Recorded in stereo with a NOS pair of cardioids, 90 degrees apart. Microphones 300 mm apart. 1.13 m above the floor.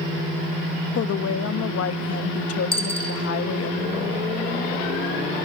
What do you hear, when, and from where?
0.9 s a woman speaking: 55° left, 1.1 m
2.7 s a dropped coin: 20° left, 4 m